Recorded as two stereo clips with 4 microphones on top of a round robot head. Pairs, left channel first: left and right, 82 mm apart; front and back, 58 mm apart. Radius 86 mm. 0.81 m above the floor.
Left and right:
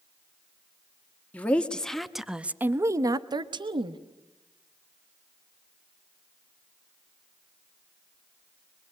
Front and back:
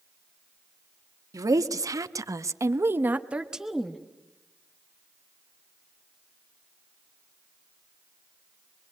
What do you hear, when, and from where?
1.3 s a woman speaking: 165° left, 1.8 m; by 4.0 s 85° right, 1.5 m